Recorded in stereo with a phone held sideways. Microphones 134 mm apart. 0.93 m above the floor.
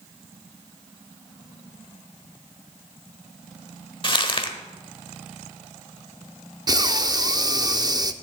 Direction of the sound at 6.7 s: 30° right (ahead or behind).